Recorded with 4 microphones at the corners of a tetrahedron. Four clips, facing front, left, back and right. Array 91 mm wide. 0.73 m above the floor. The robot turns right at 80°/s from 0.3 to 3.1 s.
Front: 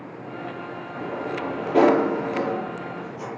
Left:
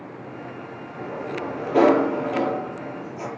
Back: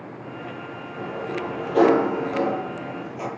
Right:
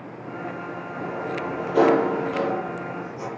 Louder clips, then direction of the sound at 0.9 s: Even, even; 25° right.